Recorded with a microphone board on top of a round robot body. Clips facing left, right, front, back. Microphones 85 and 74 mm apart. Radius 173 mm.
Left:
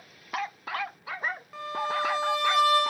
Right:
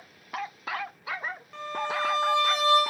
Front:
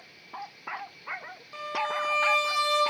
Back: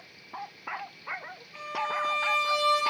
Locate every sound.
1.5 s a violin: 5° left, 0.5 m